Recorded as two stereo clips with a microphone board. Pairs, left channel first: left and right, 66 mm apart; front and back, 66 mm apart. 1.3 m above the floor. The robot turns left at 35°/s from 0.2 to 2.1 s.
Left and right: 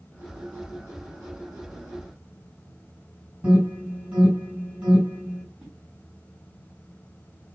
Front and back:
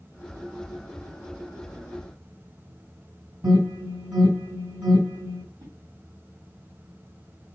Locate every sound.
3.4 s an alarm: 160° right, 3.5 m
5.6 s a whoosh: 170° right, 2.5 m